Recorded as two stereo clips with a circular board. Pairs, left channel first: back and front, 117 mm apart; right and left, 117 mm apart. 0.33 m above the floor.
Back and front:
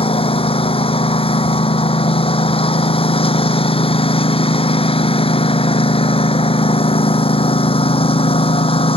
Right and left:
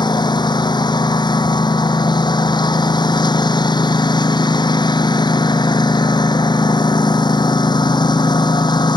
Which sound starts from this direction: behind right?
A lawn mower, at 0.0 s.